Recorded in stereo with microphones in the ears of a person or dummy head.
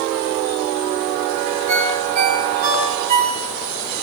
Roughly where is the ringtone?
Right.